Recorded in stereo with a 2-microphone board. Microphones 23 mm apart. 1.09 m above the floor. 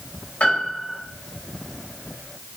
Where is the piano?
75° left (ahead or behind), 4.5 m.